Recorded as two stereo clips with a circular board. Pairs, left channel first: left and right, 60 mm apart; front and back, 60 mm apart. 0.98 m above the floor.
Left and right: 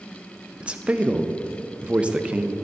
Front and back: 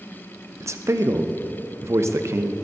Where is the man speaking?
160° right, 0.6 m.